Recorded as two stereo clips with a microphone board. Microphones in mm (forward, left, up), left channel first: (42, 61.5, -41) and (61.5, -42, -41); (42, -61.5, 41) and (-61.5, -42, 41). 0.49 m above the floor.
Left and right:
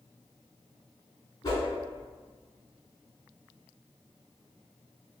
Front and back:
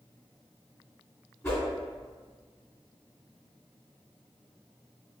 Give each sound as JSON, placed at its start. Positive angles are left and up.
{"t": 1.4, "sound": "a whoosh", "azimuth_deg": 50, "distance_m": 1.9}